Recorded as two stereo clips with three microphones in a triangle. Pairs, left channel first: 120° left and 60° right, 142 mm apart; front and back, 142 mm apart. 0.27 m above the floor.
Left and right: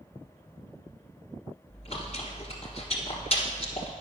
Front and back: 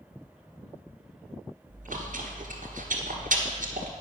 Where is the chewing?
165° left, 1.3 m.